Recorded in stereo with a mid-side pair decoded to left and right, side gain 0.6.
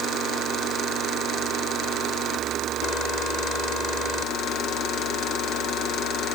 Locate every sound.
Only background noise.